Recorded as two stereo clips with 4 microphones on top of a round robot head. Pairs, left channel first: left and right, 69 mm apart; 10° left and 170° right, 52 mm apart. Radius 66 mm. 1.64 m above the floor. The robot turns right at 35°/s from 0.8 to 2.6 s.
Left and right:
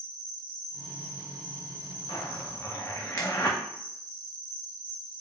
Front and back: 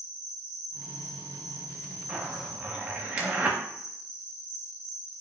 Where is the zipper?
125° left, 0.5 m; by 3.6 s 145° left, 0.5 m.